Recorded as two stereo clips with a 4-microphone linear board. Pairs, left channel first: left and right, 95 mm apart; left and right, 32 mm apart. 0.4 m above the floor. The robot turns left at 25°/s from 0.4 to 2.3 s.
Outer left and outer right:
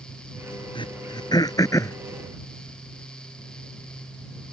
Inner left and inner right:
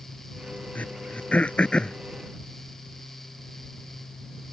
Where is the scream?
I don't hear a scream.